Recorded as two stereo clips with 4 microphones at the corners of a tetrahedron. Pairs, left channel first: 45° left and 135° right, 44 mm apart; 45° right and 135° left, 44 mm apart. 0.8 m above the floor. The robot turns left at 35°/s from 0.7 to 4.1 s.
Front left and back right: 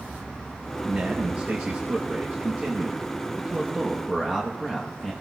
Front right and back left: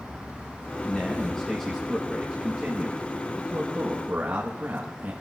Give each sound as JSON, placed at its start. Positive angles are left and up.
{"t": 0.8, "sound": "a man speaking", "azimuth_deg": -105, "distance_m": 1.0}